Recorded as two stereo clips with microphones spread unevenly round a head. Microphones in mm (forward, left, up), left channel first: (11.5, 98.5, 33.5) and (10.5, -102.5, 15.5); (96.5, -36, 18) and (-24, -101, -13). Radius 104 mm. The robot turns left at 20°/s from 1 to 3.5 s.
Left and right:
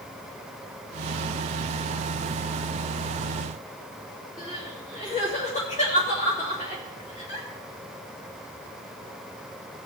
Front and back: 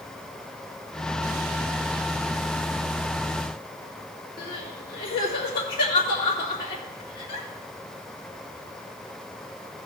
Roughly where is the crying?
Ahead left.